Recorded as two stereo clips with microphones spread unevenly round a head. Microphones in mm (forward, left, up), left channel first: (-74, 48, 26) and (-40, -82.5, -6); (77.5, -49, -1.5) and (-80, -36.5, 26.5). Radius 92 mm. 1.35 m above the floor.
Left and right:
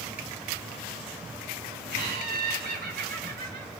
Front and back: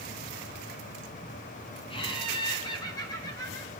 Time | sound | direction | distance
1.9 | laughter | 60° right | 3 m